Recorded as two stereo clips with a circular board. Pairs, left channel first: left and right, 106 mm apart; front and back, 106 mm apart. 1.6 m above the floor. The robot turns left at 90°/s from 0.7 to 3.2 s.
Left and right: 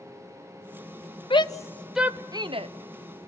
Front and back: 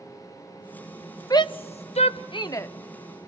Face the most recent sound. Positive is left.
turn(degrees=-115)